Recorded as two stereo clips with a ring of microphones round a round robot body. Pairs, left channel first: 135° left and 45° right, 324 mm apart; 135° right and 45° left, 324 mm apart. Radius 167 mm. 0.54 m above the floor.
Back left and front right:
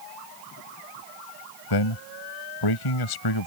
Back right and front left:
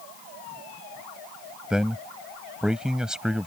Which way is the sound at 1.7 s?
135° left.